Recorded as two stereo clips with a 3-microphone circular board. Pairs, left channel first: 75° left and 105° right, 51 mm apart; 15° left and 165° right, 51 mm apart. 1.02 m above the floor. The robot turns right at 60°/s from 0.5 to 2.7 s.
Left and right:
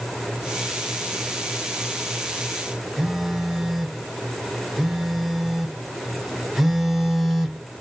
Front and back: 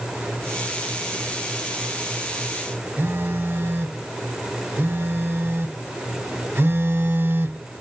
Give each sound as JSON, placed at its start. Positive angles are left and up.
{"t": 3.0, "sound": "a phone buzzing", "azimuth_deg": 175, "distance_m": 0.8}